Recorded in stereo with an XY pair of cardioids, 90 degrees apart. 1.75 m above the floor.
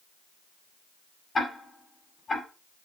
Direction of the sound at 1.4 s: 40° left.